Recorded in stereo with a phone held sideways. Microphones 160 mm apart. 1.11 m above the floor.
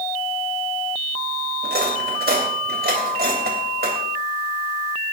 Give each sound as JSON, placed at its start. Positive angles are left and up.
{"t": 1.6, "sound": "cutlery clinking", "side_deg": -85, "distance_m": 3.0}